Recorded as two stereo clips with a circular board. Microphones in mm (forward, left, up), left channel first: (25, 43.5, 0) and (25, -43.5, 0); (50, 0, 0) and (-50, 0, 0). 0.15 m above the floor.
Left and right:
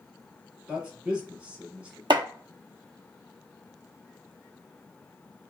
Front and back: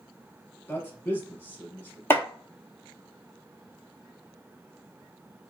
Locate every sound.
0.7 s a man speaking: 30° right, 1.1 m
2.1 s chopping: 65° right, 0.6 m